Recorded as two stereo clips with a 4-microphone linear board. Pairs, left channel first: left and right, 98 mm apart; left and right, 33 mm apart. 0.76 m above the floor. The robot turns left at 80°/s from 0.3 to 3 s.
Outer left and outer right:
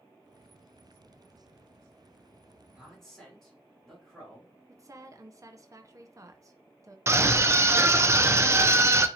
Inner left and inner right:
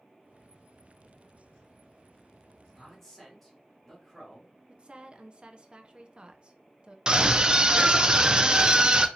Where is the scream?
30° right (ahead or behind), 0.5 m.